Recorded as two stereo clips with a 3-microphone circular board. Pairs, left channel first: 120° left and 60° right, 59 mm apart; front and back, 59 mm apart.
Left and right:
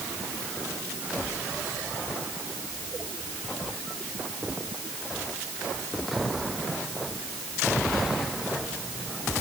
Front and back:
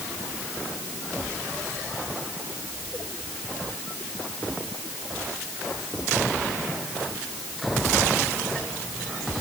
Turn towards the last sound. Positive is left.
No sound to turn to.